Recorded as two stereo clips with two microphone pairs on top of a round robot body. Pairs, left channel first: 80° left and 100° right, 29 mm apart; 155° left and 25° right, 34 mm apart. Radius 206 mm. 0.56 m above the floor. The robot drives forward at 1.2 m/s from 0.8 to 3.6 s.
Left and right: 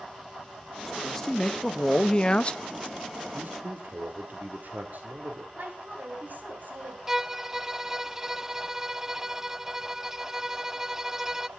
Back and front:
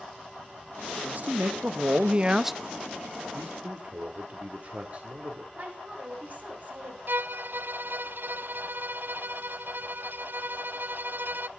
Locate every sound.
0.9 s a man speaking: 10° left, 2.5 m; by 2.6 s 80° left, 0.8 m
3.3 s a man speaking: 70° right, 2.5 m; by 5.5 s 80° right, 2.5 m
5.5 s a woman speaking: 75° right, 7 m
7.1 s a violin: 20° right, 0.7 m